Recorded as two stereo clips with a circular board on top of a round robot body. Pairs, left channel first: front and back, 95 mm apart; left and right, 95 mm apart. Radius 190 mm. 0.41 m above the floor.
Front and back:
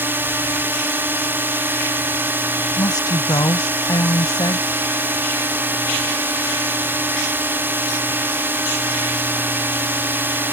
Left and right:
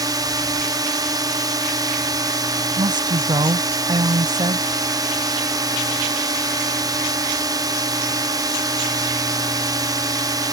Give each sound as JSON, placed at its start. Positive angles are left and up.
{"t": 0.0, "sound": "a drone", "azimuth_deg": -120}
{"t": 2.8, "sound": "a woman speaking", "azimuth_deg": -50}